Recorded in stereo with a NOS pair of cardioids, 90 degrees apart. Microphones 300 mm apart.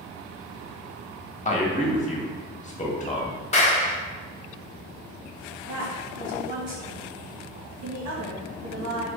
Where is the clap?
20° left, 1.3 m.